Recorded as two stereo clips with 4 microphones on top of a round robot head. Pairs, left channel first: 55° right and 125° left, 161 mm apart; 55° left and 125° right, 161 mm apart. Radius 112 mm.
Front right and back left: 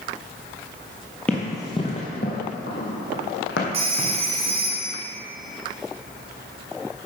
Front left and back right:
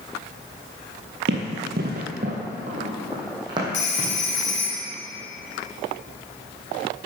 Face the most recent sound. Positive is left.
turn(degrees=70)